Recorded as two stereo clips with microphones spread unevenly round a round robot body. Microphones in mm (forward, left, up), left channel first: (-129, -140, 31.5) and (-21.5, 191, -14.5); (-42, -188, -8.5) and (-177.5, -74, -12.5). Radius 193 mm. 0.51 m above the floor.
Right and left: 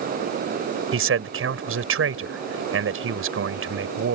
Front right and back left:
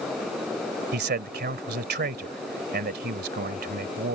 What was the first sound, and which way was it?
A man speaking, 115° left.